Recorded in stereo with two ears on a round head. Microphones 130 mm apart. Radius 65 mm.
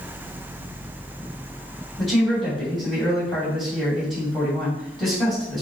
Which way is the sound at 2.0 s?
5° left (ahead or behind).